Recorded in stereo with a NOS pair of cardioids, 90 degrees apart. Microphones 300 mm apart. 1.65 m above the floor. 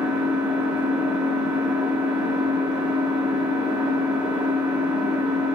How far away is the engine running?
About 0.9 m.